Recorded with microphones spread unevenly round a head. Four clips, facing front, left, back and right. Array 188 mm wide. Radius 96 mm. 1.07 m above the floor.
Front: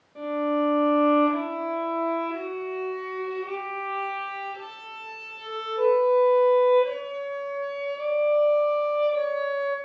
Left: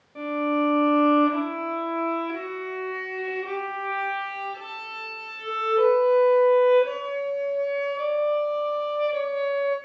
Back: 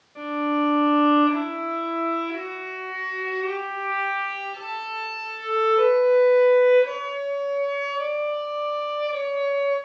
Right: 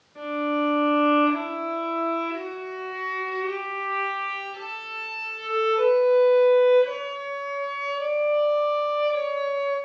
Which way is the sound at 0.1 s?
75° left.